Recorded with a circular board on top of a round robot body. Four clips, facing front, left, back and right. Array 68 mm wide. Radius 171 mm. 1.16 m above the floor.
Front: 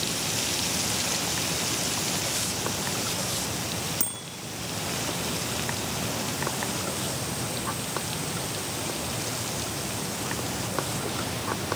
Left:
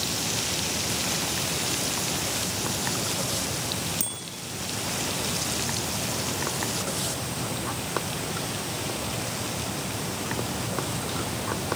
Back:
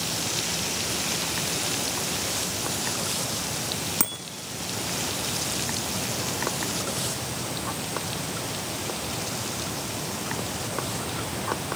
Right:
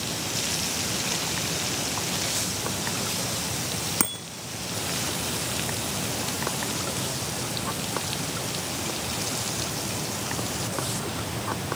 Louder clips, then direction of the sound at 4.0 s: Right 8 dB, back 5 dB; 120° right.